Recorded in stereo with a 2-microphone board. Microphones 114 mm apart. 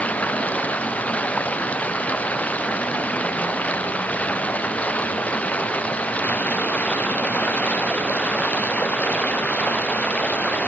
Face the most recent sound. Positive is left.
turn(degrees=10)  # may be behind; listen again after turning